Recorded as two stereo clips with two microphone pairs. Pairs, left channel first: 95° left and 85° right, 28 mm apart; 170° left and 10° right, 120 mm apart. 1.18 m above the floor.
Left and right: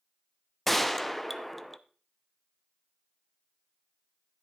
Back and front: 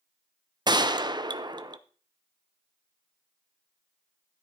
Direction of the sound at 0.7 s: 15° left.